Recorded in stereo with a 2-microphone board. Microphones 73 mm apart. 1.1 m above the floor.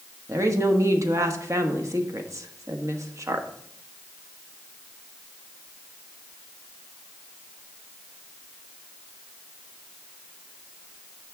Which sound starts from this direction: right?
A woman speaking, at 0.3 s.